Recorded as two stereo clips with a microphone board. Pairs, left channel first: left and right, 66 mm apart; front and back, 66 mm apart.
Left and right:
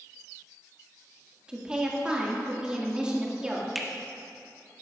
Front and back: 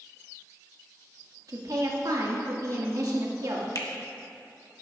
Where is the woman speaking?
165° right, 1.9 m.